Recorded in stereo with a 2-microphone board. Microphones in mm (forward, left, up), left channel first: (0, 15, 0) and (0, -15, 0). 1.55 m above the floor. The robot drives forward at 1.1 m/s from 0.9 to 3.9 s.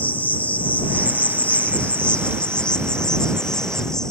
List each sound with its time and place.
0.0 s an insect: 70° left (ahead or behind); by 4.1 s 25° left (ahead or behind)